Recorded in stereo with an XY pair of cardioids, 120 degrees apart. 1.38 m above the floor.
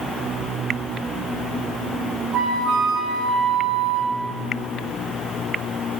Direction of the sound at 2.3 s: 60° right.